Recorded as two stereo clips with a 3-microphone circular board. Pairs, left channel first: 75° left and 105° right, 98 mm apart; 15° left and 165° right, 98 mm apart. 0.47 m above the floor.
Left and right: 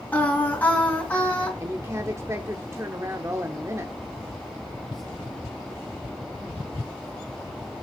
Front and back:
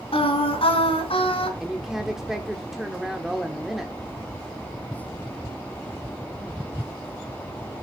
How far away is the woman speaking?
About 1.0 m.